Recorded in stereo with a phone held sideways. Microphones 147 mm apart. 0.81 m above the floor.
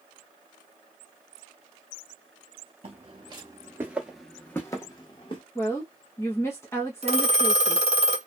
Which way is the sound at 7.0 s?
45° right (ahead or behind).